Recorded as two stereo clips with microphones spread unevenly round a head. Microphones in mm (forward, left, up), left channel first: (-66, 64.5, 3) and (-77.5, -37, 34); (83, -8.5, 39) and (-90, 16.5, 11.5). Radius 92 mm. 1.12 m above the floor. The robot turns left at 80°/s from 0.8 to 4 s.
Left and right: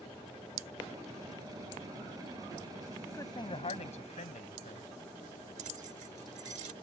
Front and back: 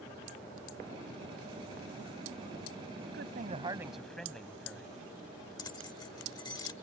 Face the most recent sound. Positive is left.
turn(degrees=-75)